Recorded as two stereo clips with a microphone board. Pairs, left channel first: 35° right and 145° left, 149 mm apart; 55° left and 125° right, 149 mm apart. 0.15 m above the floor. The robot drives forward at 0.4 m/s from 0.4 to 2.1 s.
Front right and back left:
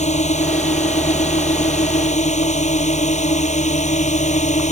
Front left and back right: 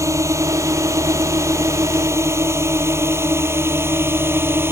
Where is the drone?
55° right; by 4.7 s 50° right.